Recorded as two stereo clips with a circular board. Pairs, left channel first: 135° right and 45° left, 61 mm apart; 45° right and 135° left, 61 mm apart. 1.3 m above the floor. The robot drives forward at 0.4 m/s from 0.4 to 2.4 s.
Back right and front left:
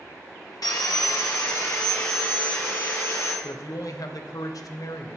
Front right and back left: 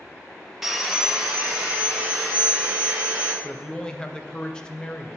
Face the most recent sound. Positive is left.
turn(degrees=-120)